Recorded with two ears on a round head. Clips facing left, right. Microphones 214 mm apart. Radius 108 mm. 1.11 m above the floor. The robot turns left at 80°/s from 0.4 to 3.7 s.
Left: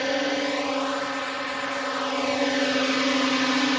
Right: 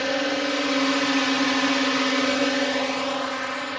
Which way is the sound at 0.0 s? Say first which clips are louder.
Right 1 dB; 5° right.